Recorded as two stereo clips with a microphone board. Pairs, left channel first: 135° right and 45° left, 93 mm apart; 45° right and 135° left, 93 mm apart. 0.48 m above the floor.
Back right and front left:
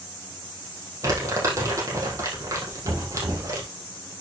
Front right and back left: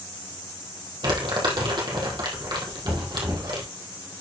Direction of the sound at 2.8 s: 85° left.